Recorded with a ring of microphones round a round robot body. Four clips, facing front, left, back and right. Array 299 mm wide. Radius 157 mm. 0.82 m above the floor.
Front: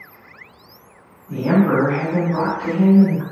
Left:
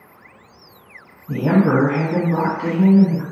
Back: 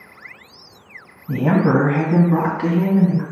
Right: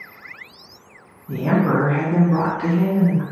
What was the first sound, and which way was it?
A woman speaking, 170° left.